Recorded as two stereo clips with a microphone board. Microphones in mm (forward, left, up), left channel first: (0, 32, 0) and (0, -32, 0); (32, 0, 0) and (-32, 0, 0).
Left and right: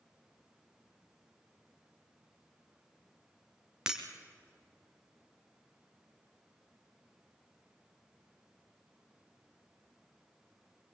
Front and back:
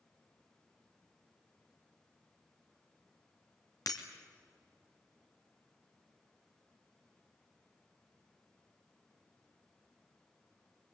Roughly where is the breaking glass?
Ahead.